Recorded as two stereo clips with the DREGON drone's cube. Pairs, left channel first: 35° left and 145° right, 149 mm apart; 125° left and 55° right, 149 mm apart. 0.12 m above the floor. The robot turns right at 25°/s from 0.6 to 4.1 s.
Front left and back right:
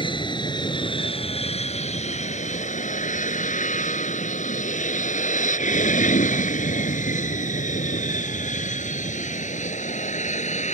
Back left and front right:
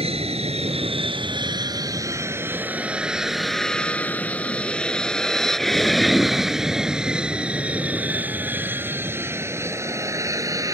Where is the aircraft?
15° right; by 10.7 s 10° left.